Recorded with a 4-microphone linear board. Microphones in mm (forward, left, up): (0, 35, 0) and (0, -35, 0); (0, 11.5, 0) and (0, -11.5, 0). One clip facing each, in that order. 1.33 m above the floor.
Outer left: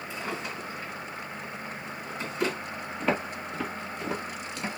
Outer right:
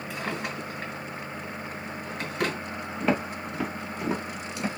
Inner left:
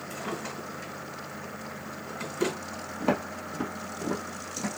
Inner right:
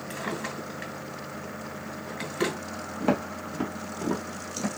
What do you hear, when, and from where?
0.1 s a drawer: 55° right (ahead or behind), 2.5 m
3.0 s footsteps: centre (ahead or behind), 1.5 m; by 4.7 s 10° right (ahead or behind), 1.5 m